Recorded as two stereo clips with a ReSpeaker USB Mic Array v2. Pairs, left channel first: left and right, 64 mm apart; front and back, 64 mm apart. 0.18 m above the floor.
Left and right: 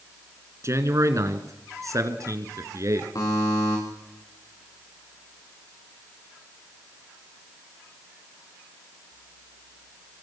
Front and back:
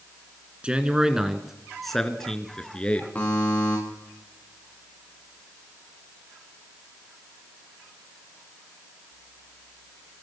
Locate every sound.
0.6 s a man speaking: 110° right, 2.5 m; by 3.0 s 70° right, 3 m
3.1 s a buzzer: 65° left, 8.5 m